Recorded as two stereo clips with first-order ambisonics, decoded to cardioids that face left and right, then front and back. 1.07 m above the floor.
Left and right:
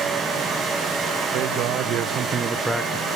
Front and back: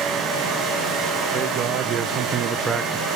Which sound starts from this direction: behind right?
A man speaking, at 1.3 s.